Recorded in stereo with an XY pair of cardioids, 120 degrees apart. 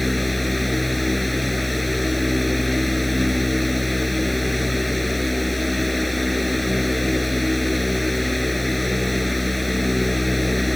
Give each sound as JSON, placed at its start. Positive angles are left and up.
{"t": 0.0, "sound": "a fan", "azimuth_deg": 10}